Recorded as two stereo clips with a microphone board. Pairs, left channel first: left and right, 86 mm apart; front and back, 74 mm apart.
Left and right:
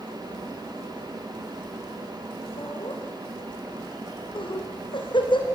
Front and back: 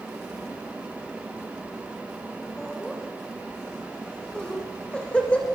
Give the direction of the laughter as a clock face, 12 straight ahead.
9 o'clock.